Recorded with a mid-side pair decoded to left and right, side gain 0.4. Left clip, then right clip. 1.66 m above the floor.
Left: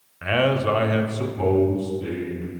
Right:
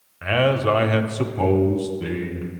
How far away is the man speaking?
About 0.7 m.